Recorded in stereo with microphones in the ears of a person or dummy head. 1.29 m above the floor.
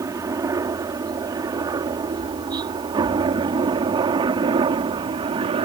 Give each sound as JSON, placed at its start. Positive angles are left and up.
{"t": 0.0, "sound": "a helicopter", "side_deg": -20}